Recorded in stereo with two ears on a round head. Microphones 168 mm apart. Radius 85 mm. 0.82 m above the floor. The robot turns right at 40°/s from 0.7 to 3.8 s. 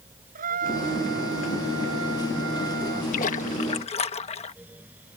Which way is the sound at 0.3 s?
135° right.